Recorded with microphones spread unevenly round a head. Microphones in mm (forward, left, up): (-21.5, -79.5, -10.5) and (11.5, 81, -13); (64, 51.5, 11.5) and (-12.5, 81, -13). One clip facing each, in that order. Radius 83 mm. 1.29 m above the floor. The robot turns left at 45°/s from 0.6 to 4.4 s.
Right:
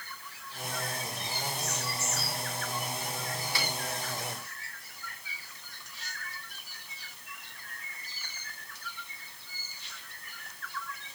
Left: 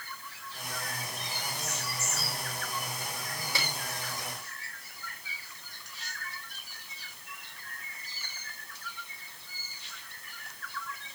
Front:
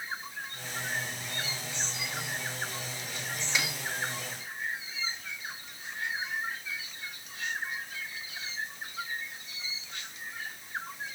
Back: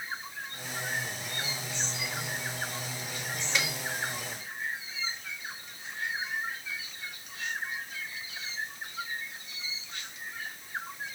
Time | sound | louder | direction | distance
3.5 | a snare drum | even, back 1 dB | 60° left | 5 m